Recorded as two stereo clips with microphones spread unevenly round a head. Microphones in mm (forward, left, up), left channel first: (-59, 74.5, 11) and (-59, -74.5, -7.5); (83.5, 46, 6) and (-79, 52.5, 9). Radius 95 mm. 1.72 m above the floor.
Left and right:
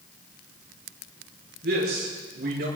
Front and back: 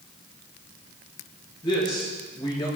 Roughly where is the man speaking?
Right.